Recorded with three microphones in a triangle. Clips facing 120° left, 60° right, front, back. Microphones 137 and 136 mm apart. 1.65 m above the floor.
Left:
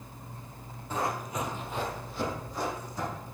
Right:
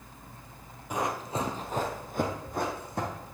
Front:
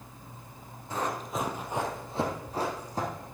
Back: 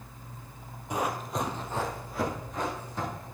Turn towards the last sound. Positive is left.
turn(degrees=-45)